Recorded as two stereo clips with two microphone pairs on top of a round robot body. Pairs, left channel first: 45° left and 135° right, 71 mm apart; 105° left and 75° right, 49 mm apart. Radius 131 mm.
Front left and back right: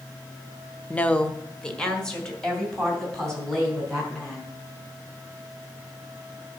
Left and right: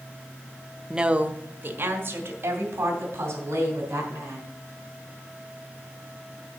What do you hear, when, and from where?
0.9 s a woman speaking: 5° right, 0.9 m; by 4.6 s 40° right, 5.5 m